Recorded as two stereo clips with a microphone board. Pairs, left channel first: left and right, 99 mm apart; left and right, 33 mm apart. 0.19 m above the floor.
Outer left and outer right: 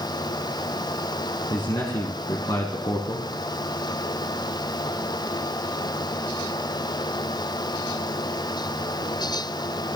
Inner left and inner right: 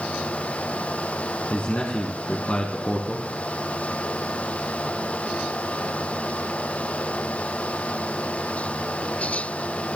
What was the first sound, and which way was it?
A man speaking, 45° left (ahead or behind).